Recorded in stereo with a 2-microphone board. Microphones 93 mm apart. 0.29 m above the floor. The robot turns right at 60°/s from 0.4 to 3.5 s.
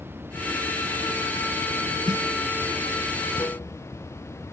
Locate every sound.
0.0 s running water: 155° right; by 4.5 s 30° left
2.1 s a snare drum: 70° right (ahead or behind); by 2.2 s 65° right (ahead or behind)